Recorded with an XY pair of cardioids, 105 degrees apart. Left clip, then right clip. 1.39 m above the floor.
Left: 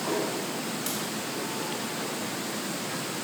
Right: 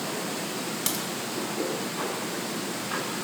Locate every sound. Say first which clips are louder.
0.9 s a crack: right 5 dB; 60° right, 1.9 m